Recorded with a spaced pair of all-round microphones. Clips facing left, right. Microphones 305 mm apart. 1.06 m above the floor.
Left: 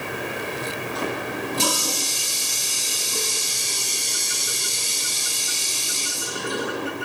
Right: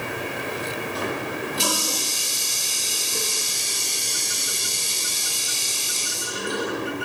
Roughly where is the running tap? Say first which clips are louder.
Left 1 dB; left.